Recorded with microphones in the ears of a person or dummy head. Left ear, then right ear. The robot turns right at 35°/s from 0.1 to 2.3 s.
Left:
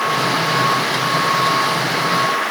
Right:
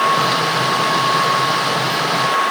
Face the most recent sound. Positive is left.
No sound to turn to.